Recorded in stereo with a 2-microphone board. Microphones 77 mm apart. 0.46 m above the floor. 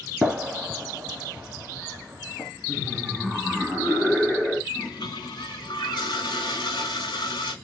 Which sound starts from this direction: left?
A toilet flushing, at 4.7 s.